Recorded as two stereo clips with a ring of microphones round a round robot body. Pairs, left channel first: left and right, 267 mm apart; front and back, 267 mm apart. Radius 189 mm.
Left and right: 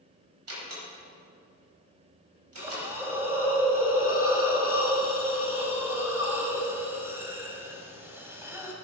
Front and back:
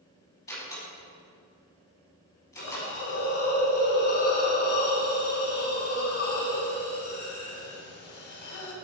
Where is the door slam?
65° right, 4.5 m.